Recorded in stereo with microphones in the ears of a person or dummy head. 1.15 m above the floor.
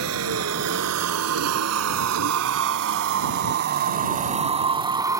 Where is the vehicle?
70° right (ahead or behind); by 5.2 s 15° right (ahead or behind).